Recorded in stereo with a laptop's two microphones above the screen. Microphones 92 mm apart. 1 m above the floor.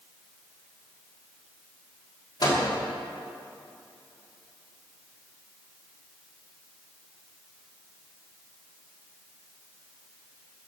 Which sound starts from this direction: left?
A microwave, at 2.4 s.